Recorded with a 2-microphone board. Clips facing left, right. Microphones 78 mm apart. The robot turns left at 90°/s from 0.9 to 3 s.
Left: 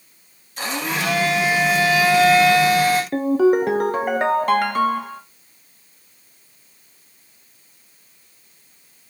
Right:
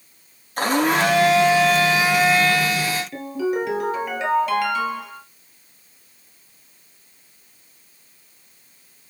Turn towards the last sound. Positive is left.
turn(degrees=50)  # may be behind; listen again after turning